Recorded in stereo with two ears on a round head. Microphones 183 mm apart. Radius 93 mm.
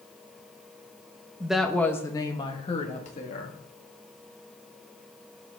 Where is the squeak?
I don't hear a squeak.